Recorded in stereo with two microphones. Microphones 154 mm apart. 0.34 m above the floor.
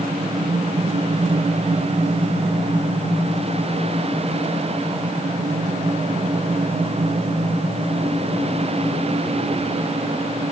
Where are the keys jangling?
I don't hear keys jangling.